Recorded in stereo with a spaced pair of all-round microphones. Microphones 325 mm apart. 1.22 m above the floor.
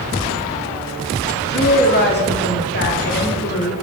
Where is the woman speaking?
30° left (ahead or behind), 0.8 m.